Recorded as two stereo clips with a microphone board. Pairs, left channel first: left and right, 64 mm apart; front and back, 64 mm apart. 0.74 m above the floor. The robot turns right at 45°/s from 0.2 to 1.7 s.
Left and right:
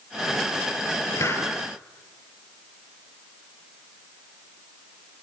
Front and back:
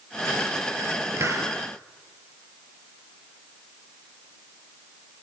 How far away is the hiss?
About 4 m.